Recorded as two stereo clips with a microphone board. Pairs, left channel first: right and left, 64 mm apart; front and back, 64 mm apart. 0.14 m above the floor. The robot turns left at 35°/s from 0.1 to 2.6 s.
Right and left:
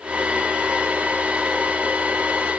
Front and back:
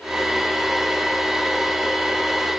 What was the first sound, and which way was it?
Only background noise.